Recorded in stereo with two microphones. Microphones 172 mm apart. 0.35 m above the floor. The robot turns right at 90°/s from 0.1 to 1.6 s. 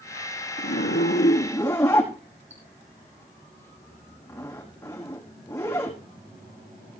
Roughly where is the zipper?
Left.